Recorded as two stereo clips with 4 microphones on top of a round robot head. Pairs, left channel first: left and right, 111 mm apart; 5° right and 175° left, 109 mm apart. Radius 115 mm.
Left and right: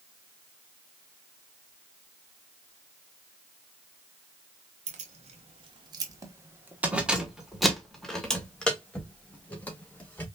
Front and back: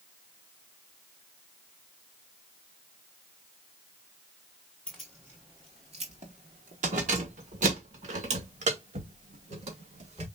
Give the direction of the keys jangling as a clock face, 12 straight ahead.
3 o'clock.